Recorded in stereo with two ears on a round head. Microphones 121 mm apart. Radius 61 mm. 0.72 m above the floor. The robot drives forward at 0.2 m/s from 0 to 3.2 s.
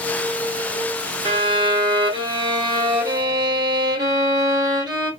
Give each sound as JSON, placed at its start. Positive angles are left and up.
{"t": 1.2, "sound": "a violin", "side_deg": -40, "distance_m": 1.4}